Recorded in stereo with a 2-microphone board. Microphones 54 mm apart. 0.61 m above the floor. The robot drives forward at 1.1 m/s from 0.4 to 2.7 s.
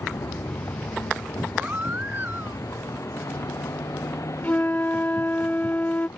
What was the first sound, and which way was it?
A vehicle, 60° left (ahead or behind).